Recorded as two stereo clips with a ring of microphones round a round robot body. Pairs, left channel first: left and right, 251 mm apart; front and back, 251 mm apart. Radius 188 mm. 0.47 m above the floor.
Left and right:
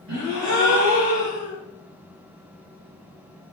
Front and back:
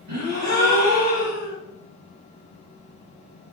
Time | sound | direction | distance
0.1 | a gasp | 145° right | 3 m